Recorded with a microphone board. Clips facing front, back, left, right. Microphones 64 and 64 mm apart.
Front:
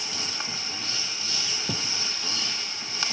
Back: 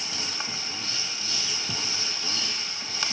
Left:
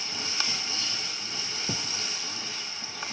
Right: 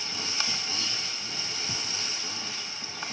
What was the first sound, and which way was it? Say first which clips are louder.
A thud: front 2 dB, left 2 dB; 45° left.